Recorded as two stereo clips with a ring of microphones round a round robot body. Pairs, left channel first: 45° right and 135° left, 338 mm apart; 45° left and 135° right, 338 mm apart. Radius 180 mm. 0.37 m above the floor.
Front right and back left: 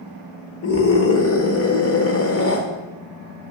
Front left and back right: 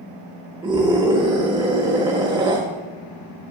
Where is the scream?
65° right, 1.3 m.